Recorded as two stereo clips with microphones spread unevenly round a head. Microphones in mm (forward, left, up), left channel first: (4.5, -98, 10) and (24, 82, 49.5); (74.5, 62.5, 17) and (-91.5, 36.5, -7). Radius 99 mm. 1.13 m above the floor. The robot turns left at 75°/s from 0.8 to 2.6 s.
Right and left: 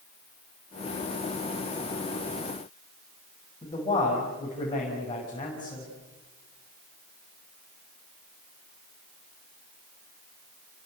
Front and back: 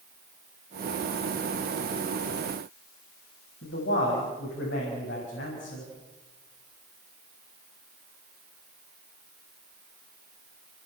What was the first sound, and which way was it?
A man speaking, 30° right.